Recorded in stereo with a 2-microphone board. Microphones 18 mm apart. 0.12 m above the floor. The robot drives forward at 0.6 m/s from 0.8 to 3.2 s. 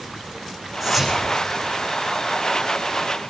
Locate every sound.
0.8 s whispering: centre (ahead or behind), 5.5 m